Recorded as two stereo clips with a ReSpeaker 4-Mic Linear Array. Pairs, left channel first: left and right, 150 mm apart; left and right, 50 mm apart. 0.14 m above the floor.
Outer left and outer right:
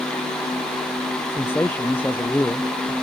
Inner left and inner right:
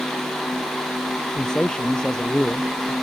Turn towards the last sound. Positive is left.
turn(degrees=15)  # may be behind; listen again after turning